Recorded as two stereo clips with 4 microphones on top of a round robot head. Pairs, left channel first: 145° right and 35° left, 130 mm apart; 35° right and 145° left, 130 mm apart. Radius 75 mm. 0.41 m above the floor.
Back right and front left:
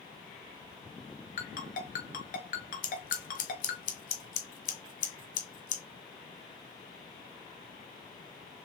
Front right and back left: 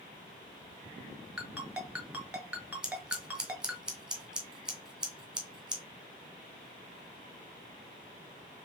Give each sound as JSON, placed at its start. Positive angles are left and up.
{"t": 1.4, "sound": "a ringtone", "azimuth_deg": -130, "distance_m": 1.9}
{"t": 2.8, "sound": "scissors", "azimuth_deg": -130, "distance_m": 1.5}